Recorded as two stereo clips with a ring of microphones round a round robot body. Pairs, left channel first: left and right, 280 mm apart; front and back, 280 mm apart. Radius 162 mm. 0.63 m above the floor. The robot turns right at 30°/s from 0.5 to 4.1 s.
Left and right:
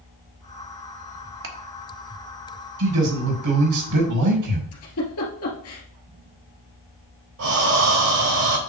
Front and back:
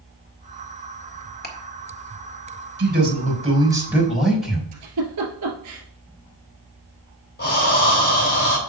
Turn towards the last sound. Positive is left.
turn(degrees=-55)